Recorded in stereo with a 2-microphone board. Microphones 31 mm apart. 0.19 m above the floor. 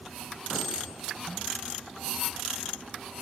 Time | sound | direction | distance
0.5 | a clink | centre (ahead or behind) | 1.2 m